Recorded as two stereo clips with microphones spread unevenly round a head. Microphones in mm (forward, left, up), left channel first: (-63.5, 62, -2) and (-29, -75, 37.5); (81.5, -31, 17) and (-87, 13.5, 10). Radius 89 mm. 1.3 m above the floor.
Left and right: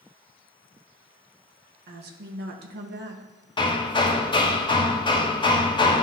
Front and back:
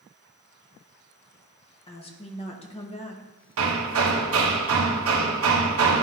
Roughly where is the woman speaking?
Right.